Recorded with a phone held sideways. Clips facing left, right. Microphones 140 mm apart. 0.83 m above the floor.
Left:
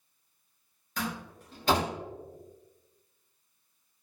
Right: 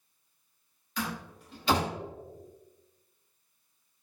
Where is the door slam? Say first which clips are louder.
Even; 45° left (ahead or behind), 1.5 m.